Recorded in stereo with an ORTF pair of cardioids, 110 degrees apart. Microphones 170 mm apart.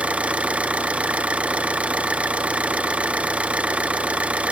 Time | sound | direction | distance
0.0 | an engine running | 5° right | 0.7 m